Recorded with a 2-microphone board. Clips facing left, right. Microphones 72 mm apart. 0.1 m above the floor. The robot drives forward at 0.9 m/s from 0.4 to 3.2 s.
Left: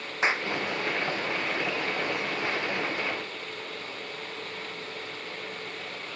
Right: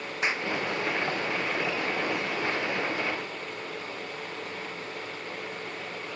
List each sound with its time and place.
0.2 s a clap: 25° left (ahead or behind)